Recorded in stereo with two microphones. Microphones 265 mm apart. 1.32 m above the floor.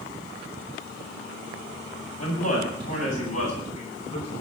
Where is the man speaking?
70° left (ahead or behind), 8 m; by 4.4 s 80° left, 10.5 m.